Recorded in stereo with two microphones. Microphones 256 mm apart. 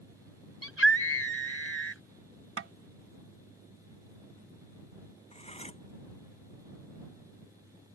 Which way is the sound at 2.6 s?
55° right (ahead or behind).